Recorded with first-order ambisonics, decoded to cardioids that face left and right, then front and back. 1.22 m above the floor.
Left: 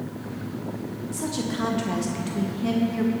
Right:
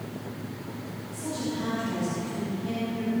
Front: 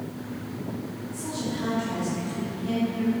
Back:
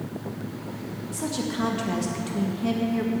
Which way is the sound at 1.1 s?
135° left.